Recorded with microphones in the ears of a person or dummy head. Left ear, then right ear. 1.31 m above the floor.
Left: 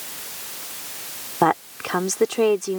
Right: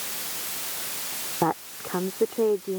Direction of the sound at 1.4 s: 70° left (ahead or behind).